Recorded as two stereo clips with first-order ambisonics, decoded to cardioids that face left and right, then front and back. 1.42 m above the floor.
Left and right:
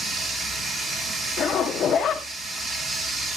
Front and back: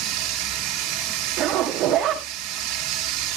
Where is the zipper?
145° left, 1.5 m.